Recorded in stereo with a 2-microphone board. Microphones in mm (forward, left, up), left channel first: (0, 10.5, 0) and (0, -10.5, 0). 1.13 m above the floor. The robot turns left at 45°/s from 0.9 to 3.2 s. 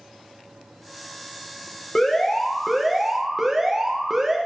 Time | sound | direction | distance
1.9 | an alarm | 40° left | 1.3 m